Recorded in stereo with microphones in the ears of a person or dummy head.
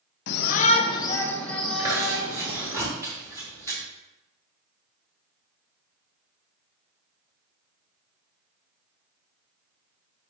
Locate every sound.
0.3 s a shout: 65° left (ahead or behind), 0.8 m; by 2.8 s 10° right (ahead or behind), 2 m
1.8 s chewing: 20° right (ahead or behind), 2.5 m